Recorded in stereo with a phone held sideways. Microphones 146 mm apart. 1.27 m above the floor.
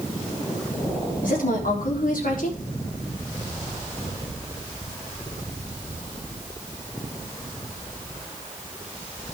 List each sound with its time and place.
1.2 s a woman speaking: 75° left (ahead or behind), 3.5 m